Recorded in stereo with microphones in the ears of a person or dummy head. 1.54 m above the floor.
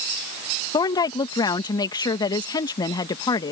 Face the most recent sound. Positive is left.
turn(degrees=25)  # may be behind; listen again after turning